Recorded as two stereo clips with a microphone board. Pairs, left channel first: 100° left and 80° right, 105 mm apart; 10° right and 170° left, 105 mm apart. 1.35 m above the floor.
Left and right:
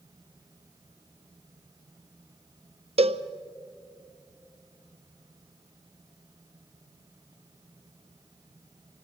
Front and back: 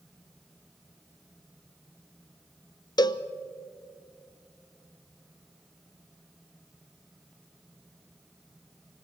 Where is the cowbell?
60° right, 0.6 m.